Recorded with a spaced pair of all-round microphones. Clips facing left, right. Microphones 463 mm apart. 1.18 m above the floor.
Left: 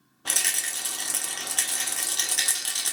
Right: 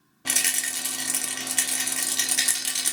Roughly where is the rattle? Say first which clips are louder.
Right 4 dB; right.